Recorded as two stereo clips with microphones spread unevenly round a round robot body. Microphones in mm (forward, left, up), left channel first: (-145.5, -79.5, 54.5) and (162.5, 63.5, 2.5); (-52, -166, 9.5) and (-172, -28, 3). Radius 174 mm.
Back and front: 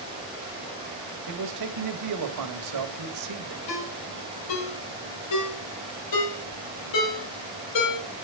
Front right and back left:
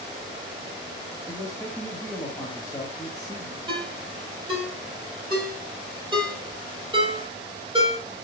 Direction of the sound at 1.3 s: 30° left.